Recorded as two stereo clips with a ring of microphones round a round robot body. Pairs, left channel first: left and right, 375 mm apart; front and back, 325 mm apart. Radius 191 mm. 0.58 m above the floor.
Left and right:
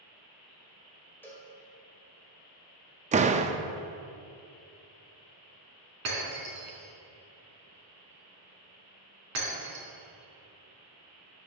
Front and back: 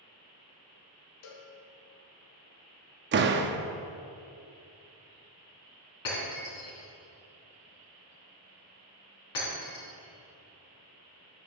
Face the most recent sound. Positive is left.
turn(degrees=-40)